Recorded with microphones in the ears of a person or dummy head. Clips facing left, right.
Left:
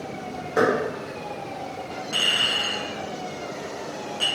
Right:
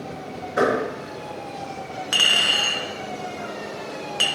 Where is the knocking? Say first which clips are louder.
Even; 60° left (ahead or behind), 1.3 m.